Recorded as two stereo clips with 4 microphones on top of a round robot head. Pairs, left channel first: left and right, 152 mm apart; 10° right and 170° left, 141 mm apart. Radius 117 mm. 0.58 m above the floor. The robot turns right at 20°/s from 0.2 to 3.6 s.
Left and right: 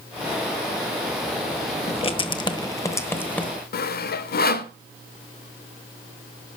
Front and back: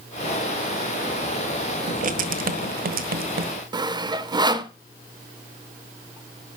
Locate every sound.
1.9 s writing: 140° left, 1.2 m; by 3.5 s 175° left, 1.2 m
3.7 s sawing: 110° left, 1.0 m